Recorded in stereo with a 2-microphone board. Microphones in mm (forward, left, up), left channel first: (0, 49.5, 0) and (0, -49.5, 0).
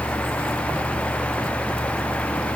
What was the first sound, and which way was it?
Only background noise.